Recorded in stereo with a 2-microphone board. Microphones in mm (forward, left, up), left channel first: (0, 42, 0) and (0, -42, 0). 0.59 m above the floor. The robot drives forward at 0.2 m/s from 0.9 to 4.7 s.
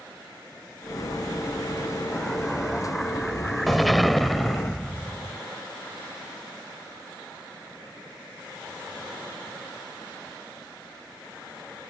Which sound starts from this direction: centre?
An explosion, at 2.1 s.